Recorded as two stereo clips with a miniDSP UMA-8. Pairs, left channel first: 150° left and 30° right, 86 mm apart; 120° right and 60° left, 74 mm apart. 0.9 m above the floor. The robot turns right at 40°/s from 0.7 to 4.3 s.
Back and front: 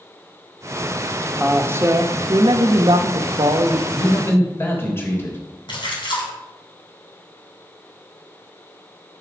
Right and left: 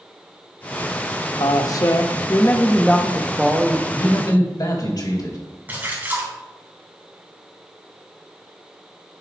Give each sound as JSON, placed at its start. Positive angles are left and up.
{"t": 1.4, "sound": "a man speaking", "azimuth_deg": -100, "distance_m": 0.8}
{"t": 3.9, "sound": "a man speaking", "azimuth_deg": -165, "distance_m": 3.5}
{"t": 5.7, "sound": "a splash", "azimuth_deg": 125, "distance_m": 3.0}